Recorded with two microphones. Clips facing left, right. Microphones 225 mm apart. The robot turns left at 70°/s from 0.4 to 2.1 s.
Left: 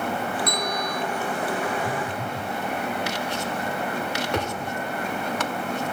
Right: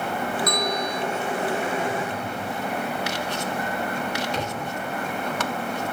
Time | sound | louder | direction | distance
0.5 | a bell | right 2 dB | 155° left | 2 m
1.8 | a phone buzzing | right 1 dB | 50° left (ahead or behind) | 1.8 m
4.3 | a thud | left 2 dB | 65° left (ahead or behind) | 6 m